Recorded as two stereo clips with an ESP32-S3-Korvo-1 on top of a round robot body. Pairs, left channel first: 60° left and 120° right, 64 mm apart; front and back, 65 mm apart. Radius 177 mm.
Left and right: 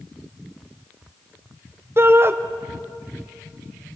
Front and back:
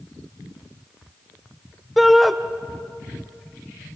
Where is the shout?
90° right, 0.9 m.